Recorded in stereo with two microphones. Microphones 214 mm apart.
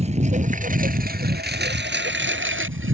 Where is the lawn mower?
30° right (ahead or behind); by 2.9 s 75° right (ahead or behind).